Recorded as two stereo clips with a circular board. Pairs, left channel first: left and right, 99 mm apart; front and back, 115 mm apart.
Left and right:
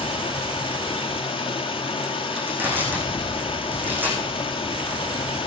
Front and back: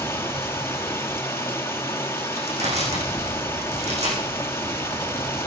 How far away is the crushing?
About 6.5 m.